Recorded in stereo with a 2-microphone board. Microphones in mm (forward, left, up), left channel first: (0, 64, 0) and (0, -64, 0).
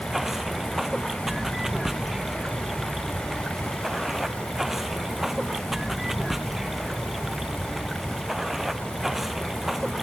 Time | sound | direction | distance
0.0 | running water | centre (ahead or behind) | ?